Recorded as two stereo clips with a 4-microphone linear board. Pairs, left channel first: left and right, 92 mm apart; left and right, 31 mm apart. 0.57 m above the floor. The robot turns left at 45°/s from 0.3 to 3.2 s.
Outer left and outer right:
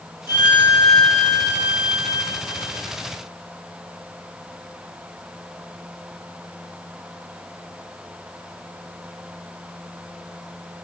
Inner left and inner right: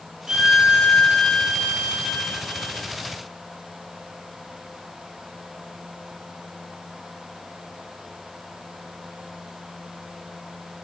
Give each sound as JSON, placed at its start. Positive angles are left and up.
{"t": 0.3, "sound": "a violin", "azimuth_deg": -155, "distance_m": 2.0}